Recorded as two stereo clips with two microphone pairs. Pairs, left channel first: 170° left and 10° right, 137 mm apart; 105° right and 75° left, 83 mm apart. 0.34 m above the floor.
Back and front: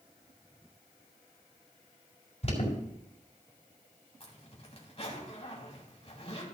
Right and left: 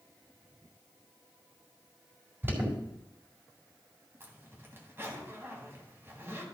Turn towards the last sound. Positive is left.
turn(degrees=135)